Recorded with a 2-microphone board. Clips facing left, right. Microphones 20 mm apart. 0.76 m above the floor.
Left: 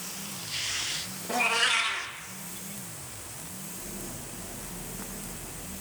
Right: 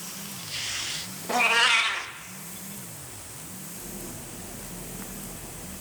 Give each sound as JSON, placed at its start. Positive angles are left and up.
{"t": 1.3, "sound": "a cat meowing", "side_deg": -25, "distance_m": 0.6}